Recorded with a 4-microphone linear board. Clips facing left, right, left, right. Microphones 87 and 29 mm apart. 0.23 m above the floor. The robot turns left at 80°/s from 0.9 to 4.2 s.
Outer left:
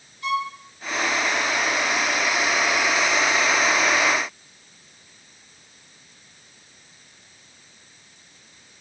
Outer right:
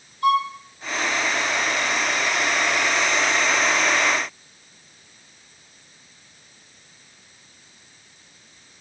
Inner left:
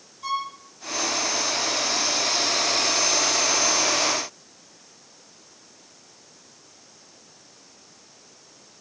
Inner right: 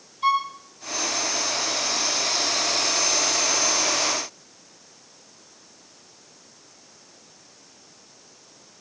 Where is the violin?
55° right (ahead or behind), 3 m.